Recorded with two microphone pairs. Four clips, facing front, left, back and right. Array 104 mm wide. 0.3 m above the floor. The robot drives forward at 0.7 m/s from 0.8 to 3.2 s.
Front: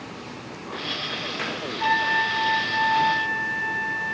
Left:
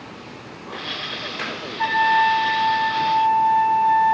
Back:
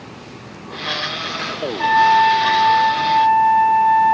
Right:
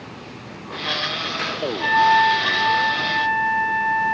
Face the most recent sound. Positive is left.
turn(degrees=160)